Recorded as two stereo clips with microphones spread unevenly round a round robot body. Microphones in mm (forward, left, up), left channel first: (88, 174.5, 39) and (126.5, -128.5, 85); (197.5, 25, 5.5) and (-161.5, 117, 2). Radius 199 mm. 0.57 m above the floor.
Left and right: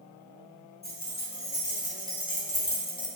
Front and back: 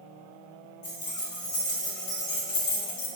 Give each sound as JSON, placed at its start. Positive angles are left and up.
{"t": 0.8, "sound": "keys jangling", "azimuth_deg": 40, "distance_m": 1.6}